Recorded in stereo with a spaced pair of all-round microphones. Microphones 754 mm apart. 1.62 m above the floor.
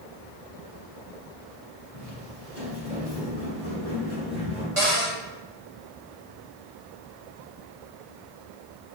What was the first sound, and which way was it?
Footsteps, 10° right (ahead or behind).